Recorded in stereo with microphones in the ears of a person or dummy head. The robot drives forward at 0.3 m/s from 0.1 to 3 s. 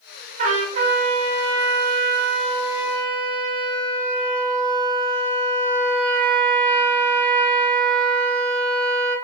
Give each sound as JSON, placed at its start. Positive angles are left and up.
{"t": 0.4, "sound": "a trumpet", "side_deg": -50, "distance_m": 0.9}